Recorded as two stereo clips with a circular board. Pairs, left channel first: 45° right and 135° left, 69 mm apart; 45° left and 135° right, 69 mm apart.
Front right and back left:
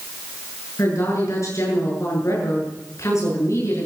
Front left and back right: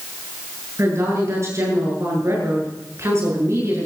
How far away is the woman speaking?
About 7.5 m.